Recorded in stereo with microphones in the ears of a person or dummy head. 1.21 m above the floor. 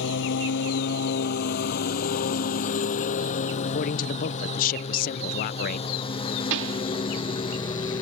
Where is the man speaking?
45° left (ahead or behind).